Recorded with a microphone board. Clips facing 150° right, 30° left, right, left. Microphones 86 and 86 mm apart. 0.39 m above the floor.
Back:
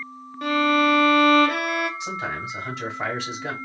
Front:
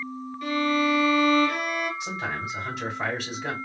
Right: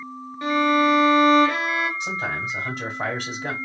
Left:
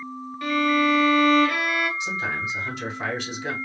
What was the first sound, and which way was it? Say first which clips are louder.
A violin: back 4 dB, right 2 dB; 150° right.